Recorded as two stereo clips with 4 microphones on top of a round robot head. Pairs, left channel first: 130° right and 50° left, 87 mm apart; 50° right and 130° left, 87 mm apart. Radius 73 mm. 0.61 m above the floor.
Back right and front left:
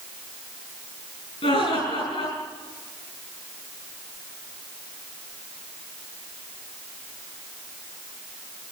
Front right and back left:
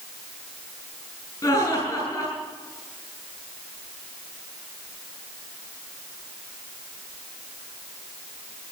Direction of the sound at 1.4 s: 110° right.